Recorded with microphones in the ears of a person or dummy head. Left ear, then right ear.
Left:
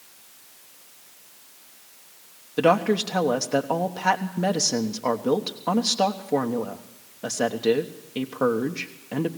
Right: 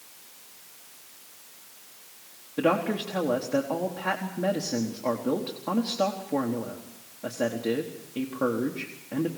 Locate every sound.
2.6 s a woman speaking: 85° left, 1.2 m